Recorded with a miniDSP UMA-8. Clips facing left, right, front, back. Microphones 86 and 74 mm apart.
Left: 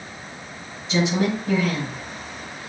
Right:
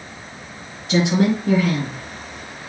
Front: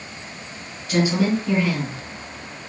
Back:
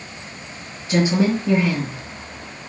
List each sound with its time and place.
0.9 s a woman speaking: 115° right, 5 m